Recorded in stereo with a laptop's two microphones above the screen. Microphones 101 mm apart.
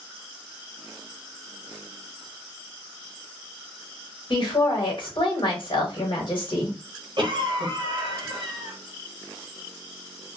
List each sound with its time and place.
4.3 s a woman speaking: 55° left (ahead or behind), 1.4 m
7.2 s a cough: 50° right (ahead or behind), 1.1 m